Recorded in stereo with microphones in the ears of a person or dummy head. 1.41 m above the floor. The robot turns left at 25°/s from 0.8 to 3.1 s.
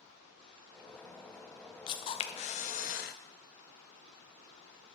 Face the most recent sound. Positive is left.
turn(degrees=120)